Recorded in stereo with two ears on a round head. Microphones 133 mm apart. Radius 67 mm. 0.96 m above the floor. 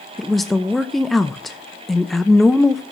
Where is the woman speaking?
Centre (ahead or behind), 0.6 m.